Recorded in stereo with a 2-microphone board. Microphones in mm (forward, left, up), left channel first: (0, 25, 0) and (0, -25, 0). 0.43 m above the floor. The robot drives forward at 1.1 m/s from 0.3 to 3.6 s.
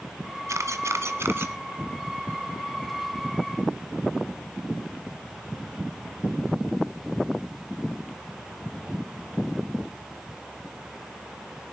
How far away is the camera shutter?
About 1.4 m.